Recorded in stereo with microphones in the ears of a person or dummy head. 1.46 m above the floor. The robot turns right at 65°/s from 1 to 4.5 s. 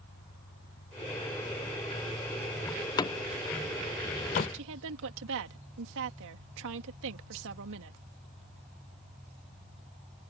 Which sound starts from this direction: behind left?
An engine running, at 0.0 s.